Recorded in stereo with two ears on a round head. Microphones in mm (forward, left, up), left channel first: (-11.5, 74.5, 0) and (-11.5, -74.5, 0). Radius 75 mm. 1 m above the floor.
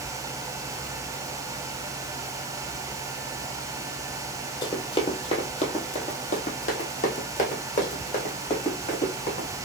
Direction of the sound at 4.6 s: 25° left (ahead or behind).